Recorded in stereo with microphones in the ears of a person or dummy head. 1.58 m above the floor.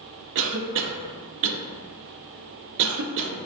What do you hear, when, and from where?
0.3 s a cough: 65° right (ahead or behind), 0.6 m